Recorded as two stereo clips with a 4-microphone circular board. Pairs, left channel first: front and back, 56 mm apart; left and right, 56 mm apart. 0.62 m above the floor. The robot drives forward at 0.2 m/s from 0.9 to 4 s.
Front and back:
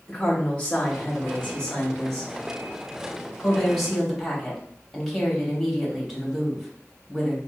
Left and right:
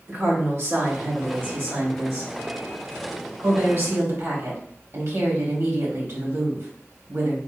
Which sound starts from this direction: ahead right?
A woman speaking, at 0.1 s.